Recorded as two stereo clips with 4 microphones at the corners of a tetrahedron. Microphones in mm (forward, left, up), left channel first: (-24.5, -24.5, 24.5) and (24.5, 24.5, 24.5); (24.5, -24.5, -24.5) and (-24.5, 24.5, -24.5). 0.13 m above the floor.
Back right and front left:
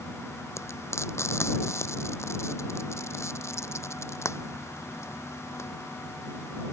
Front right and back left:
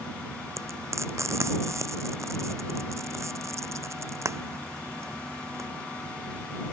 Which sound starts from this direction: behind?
Frying, at 0.6 s.